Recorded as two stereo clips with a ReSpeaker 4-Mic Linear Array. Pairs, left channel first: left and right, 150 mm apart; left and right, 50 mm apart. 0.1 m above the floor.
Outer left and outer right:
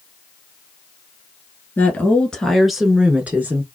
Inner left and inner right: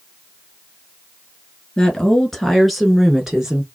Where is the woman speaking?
15° left (ahead or behind), 1.3 m; by 3.7 s 15° right (ahead or behind), 1.2 m.